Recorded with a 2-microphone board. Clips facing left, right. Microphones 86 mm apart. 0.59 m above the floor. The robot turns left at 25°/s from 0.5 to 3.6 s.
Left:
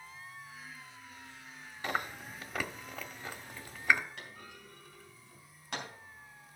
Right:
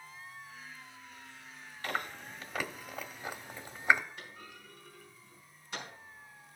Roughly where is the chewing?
Centre.